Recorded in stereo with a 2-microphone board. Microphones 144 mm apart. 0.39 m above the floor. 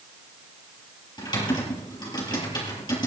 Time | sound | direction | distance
1.2 | typing on a keyboard | 30° left (ahead or behind) | 7 m